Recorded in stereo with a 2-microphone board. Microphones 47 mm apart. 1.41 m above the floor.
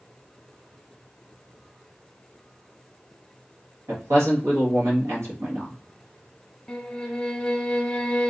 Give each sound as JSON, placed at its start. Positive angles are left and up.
{"t": 3.9, "sound": "a man speaking", "side_deg": -80, "distance_m": 2.0}
{"t": 6.7, "sound": "a violin", "side_deg": 10, "distance_m": 0.8}